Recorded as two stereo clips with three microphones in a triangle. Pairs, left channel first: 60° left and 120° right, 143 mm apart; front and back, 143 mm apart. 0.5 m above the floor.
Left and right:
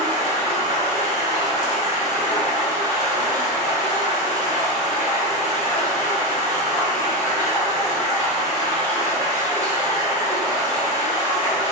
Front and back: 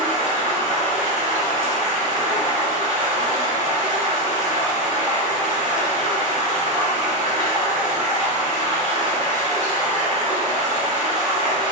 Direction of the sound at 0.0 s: 175° right.